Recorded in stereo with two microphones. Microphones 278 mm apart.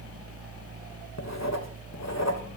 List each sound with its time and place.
1.2 s writing: 70° left (ahead or behind), 1.9 m